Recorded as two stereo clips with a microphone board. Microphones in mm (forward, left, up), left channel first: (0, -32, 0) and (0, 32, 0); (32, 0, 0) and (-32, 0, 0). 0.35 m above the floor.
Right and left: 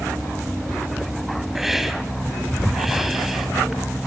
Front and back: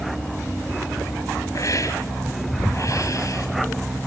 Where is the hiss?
5° left, 2.5 m.